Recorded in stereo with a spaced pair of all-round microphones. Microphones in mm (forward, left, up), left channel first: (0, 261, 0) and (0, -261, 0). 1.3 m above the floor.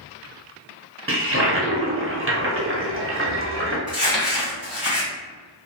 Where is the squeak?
No squeak in this recording.